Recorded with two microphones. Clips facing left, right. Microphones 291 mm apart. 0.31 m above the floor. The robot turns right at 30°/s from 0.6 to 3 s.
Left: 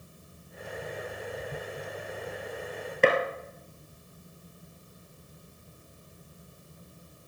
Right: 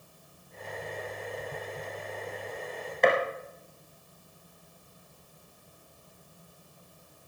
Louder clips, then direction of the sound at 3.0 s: Left 1 dB; 35° left (ahead or behind).